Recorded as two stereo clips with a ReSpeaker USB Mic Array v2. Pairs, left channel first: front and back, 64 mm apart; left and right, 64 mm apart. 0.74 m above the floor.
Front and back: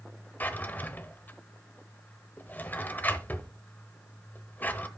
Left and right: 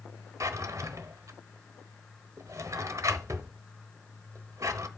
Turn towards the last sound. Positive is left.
turn(degrees=-60)